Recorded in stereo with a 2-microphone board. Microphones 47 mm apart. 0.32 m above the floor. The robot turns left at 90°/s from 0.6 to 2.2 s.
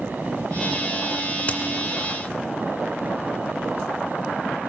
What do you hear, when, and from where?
1.5 s a crack: 30° left (ahead or behind), 2 m; by 1.6 s 40° left (ahead or behind), 2 m